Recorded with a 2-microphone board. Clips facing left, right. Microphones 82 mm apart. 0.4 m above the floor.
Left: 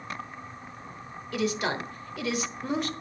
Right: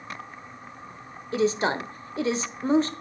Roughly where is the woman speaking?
Right.